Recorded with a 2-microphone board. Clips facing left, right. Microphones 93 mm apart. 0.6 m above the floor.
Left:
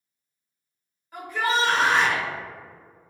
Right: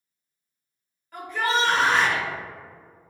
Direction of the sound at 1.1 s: 10° left (ahead or behind).